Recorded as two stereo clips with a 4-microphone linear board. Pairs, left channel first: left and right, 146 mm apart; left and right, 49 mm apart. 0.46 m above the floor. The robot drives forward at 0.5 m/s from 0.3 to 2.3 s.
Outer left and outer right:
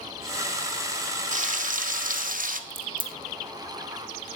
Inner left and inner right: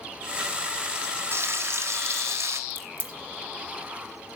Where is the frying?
60° right (ahead or behind), 1.3 m; by 2.6 s 65° right (ahead or behind), 1.2 m.